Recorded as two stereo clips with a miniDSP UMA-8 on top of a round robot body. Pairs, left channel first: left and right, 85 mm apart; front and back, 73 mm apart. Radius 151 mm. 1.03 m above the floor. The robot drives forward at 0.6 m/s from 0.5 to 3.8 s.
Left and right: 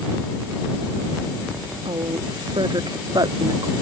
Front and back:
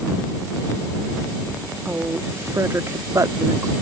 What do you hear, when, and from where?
1.9 s a woman speaking: 115° right; by 3.7 s 135° right